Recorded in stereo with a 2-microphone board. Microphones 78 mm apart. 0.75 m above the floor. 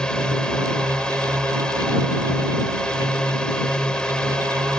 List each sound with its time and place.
0.0 s a drone: 10° left (ahead or behind)